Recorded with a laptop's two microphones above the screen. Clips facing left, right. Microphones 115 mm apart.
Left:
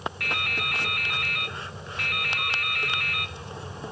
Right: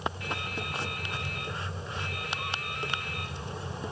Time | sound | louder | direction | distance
0.2 | dripping | left 3 dB | 70° left (ahead or behind) | 0.6 m